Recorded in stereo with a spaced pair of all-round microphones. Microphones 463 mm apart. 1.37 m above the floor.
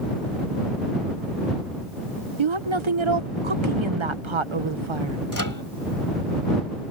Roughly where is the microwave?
Left.